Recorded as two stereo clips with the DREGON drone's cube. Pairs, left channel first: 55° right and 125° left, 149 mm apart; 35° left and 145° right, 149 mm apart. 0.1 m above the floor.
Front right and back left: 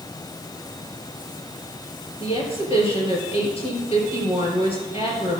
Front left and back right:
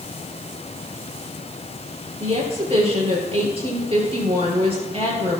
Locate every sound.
2.2 s a woman speaking: 100° right, 3 m